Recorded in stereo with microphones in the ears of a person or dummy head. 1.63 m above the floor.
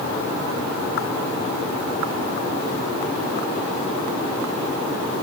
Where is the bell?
I don't hear a bell.